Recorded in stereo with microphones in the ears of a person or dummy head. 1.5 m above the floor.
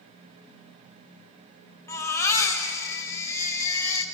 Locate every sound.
1.9 s a baby crying: 15° left (ahead or behind), 4.5 m